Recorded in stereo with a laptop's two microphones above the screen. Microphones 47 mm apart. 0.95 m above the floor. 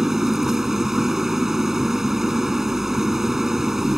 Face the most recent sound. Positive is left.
turn(degrees=-10)  # may be behind; listen again after turning